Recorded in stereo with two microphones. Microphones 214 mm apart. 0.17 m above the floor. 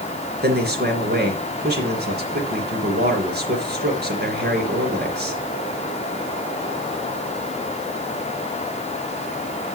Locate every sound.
0.4 s a man speaking: 50° right (ahead or behind), 3.5 m